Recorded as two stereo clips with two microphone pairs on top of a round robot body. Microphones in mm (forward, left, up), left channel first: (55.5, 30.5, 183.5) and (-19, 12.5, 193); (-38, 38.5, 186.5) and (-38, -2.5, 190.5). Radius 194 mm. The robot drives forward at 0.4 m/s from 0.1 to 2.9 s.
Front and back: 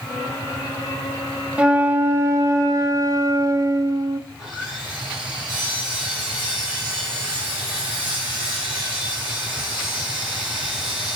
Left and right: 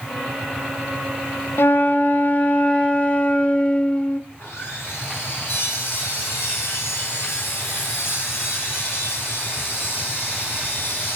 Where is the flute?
120° left, 0.5 m; by 4.2 s 155° left, 0.9 m.